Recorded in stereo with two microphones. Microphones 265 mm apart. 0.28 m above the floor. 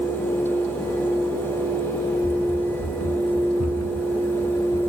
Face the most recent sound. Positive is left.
turn(degrees=70)  # may be behind; listen again after turning